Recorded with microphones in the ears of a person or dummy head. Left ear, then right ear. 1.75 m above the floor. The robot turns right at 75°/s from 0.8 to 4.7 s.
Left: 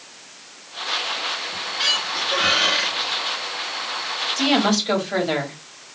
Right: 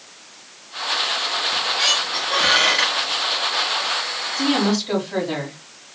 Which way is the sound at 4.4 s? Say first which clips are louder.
Left 1 dB; 80° left.